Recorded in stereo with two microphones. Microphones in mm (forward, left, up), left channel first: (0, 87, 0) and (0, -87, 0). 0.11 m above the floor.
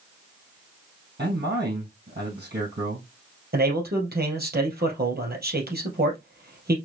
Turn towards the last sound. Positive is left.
turn(degrees=-65)  # may be behind; listen again after turning